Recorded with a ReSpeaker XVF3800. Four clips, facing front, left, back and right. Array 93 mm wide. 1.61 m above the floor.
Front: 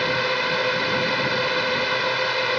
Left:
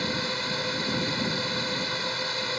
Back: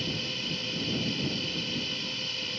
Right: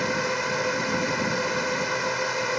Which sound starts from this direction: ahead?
A drone, at 0.0 s.